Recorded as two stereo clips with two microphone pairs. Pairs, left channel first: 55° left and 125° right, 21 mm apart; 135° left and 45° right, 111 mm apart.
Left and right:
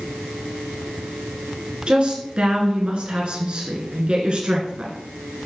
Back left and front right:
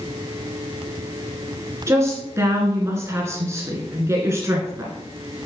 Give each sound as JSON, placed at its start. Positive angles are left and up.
{"t": 1.9, "sound": "a woman speaking", "azimuth_deg": -105, "distance_m": 1.8}